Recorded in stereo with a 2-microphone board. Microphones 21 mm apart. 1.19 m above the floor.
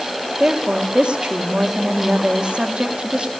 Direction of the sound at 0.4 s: 60° right (ahead or behind).